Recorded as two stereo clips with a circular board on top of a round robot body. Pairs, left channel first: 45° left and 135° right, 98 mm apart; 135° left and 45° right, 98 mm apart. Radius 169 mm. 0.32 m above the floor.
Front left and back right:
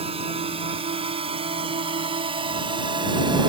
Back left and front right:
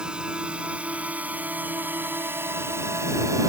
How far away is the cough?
I don't hear a cough.